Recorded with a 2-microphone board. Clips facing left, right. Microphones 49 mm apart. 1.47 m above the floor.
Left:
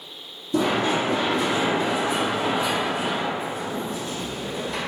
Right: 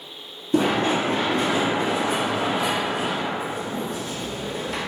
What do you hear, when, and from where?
0.5 s running footsteps: 40° right (ahead or behind), 1.8 m; by 4.8 s 65° right (ahead or behind), 4 m